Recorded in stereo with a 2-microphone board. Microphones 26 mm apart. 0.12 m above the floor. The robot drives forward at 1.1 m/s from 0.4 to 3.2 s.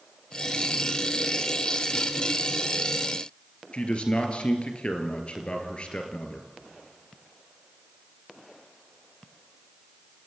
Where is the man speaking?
45° left (ahead or behind), 2.5 m.